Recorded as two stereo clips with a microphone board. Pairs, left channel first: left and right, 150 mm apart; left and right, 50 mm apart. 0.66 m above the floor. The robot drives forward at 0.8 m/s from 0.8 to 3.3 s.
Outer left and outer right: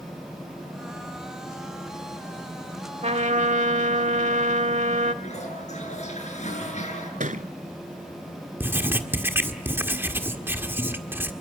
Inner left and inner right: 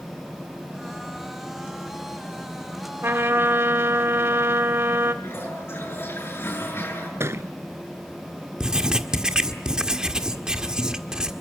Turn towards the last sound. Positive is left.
turn(degrees=-15)  # may be behind; listen again after turning